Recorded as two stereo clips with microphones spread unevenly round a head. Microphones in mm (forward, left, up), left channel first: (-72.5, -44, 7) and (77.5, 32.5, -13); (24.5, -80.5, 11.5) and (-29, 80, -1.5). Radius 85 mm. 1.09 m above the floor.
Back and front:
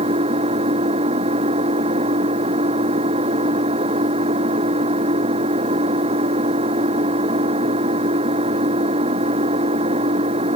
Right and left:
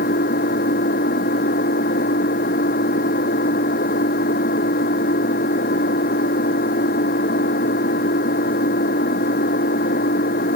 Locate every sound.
0.0 s an engine running: 30° right